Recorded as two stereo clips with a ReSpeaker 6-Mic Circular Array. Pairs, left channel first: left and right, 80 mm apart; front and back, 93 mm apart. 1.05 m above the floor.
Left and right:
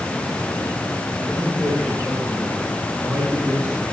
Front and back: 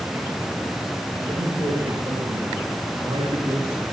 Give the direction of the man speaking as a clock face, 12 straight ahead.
5 o'clock.